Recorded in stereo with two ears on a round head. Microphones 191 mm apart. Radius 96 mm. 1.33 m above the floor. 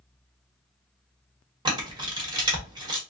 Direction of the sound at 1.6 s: 20° right (ahead or behind).